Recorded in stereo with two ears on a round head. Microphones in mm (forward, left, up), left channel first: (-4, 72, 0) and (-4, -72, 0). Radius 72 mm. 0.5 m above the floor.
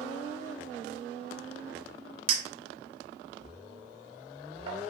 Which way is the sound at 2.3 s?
35° right (ahead or behind).